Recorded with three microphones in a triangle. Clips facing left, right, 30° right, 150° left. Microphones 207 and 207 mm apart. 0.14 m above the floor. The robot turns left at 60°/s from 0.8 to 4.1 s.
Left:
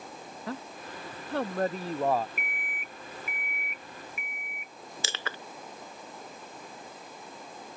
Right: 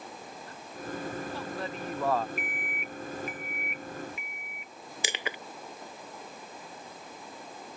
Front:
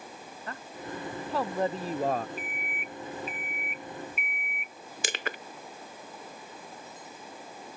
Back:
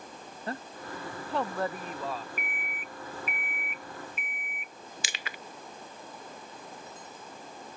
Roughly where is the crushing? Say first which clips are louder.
Right 3 dB, front 13 dB; ahead.